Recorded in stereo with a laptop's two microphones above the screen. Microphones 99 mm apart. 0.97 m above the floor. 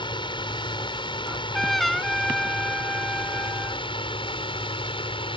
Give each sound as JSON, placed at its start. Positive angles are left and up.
{"t": 0.0, "sound": "a drone", "side_deg": 55}
{"t": 1.3, "sound": "a trumpet", "side_deg": 0}